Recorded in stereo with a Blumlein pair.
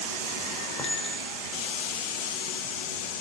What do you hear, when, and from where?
0.8 s a clink: 10° left, 5 m